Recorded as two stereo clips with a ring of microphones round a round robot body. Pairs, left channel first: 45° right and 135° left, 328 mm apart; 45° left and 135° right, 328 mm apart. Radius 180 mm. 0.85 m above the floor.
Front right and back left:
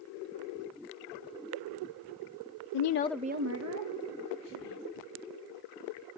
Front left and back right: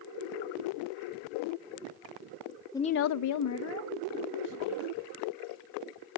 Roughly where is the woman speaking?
Ahead right.